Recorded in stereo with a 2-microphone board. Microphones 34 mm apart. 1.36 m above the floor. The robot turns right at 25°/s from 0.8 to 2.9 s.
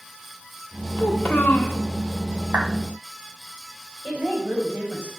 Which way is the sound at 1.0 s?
65° left (ahead or behind).